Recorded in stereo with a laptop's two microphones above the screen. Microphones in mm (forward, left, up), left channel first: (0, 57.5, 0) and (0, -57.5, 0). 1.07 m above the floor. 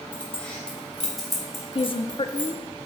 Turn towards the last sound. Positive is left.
turn(degrees=50)  # may be behind; listen again after turning